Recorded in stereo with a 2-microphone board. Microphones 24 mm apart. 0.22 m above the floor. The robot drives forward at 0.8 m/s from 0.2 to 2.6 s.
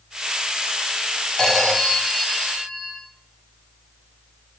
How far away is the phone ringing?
About 1.1 m.